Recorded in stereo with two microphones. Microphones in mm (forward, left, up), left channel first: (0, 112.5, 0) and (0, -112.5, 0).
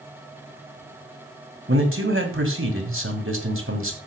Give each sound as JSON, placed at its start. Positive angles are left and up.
{"t": 1.7, "sound": "a man speaking", "side_deg": -60, "distance_m": 2.5}